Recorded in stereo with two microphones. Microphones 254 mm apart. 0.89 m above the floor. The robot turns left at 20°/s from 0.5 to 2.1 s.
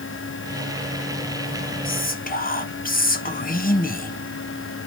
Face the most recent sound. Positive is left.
turn(degrees=35)  # may be behind; listen again after turning